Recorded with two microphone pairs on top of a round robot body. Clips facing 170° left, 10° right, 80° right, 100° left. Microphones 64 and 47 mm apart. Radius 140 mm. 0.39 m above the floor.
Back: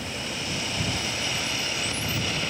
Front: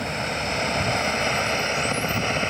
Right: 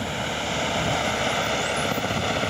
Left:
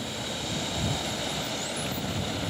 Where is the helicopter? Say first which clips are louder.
Front 6 dB, right 7 dB; 45° right; by 2.5 s 60° right.